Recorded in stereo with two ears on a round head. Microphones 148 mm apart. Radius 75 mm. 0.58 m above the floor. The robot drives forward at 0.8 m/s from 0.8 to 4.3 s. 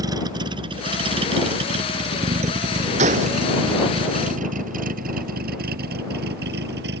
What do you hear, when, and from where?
0.0 s a vehicle: 25° right (ahead or behind); by 7.0 s 75° right (ahead or behind)
3.0 s a gunshot: 45° right (ahead or behind)